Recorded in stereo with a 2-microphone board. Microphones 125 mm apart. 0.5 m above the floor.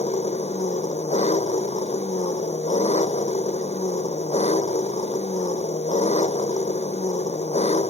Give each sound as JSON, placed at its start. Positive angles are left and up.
{"t": 0.0, "sound": "an engine running", "side_deg": 65}